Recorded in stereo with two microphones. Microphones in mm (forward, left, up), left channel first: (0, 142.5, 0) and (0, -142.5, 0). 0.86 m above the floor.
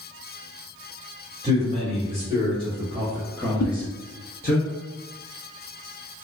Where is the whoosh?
75° left (ahead or behind), 0.6 m.